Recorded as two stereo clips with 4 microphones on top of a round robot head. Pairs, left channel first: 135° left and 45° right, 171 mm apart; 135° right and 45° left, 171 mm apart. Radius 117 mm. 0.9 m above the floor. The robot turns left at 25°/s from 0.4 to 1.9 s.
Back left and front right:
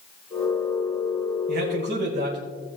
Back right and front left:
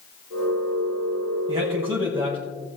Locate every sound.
1.5 s a man speaking: 25° right, 5 m; by 2.4 s 35° right, 5 m